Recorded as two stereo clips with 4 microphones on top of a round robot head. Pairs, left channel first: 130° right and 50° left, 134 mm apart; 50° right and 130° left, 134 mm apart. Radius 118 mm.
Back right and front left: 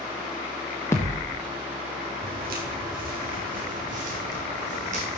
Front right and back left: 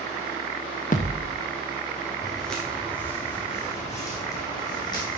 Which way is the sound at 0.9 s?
65° right.